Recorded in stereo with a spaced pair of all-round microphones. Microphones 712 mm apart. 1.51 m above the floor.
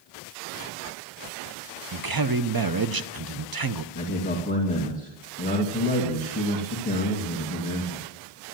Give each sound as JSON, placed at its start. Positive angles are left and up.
{"t": 1.9, "sound": "a man speaking", "side_deg": -30, "distance_m": 0.7}
{"t": 4.0, "sound": "a man speaking", "side_deg": 10, "distance_m": 2.5}